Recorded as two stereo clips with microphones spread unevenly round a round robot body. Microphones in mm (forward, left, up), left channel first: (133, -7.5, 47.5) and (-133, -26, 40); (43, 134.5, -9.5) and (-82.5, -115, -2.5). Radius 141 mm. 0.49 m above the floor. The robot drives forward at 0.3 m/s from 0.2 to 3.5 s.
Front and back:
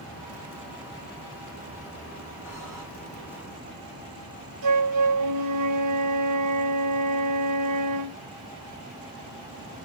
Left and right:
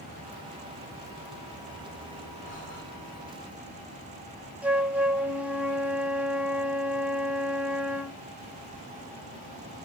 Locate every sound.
2.4 s breathing: 105° left, 2.5 m; by 2.8 s 110° left, 2.5 m
4.6 s a flute: 160° left, 1.0 m